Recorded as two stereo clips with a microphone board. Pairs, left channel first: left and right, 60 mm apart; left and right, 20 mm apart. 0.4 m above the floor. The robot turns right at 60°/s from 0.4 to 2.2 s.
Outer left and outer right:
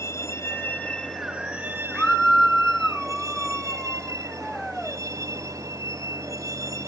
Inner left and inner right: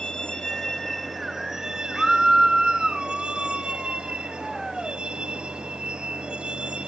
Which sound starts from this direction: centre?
A scream, at 1.9 s.